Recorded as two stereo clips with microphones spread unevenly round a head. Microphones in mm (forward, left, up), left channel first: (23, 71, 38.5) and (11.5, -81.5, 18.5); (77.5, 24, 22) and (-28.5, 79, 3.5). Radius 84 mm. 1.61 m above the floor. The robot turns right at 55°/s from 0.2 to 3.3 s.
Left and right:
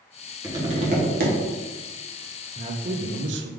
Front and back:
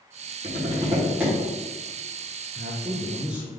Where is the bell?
No bell in this recording.